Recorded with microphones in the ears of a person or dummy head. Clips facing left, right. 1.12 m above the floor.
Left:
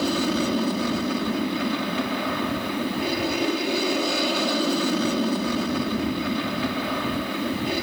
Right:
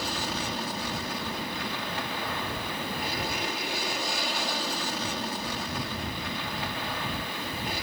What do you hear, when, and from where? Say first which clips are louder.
0.0 s an aircraft: left 11 dB; 55° left (ahead or behind)